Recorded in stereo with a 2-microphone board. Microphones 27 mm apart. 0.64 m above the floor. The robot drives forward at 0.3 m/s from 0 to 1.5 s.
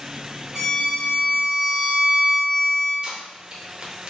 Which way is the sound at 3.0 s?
30° right (ahead or behind).